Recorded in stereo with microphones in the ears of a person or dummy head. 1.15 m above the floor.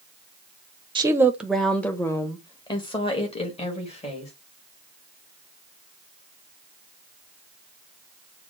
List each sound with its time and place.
0.9 s a woman speaking: 25° right (ahead or behind), 0.6 m; by 4.3 s 30° left (ahead or behind), 2.0 m